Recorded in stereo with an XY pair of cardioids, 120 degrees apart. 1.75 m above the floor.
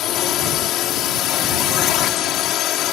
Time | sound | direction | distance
0.0 | a drone | 70° left | ?